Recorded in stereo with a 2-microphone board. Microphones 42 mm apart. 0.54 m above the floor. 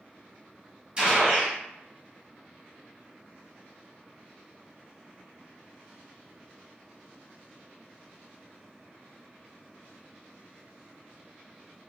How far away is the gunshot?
About 1.6 m.